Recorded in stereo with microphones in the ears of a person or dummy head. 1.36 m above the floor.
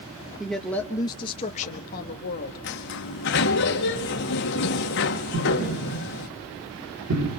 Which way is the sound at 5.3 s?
75° right (ahead or behind).